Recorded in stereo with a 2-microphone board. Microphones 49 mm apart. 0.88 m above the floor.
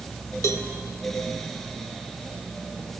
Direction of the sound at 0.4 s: 80° left.